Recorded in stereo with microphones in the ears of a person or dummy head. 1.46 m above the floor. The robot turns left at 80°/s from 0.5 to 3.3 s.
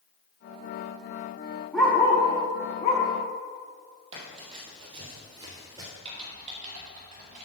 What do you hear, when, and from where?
1.7 s a dog barking: centre (ahead or behind), 1.0 m; by 3.0 s 20° left (ahead or behind), 1.0 m
4.1 s running footsteps: 35° right (ahead or behind), 3 m; by 5.9 s 20° right (ahead or behind), 2 m
6.0 s typing on a keyboard: 40° right (ahead or behind), 2.5 m